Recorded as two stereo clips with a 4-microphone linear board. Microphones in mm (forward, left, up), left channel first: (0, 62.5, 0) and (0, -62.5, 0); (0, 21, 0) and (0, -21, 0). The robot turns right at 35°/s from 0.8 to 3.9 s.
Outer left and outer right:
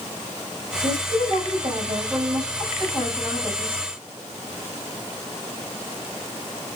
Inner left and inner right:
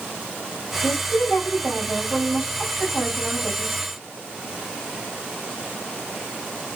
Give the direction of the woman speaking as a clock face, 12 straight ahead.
3 o'clock.